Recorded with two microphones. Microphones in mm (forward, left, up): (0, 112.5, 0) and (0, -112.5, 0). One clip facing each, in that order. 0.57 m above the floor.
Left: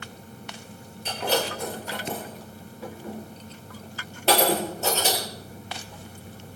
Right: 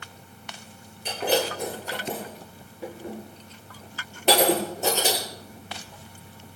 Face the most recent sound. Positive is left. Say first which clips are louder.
# right 2 dB
turn(degrees=-15)  # may be behind; listen again after turning